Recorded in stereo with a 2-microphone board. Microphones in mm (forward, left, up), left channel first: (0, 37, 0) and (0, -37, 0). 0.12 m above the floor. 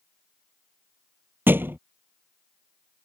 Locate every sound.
1.5 s a thud: 30° right (ahead or behind)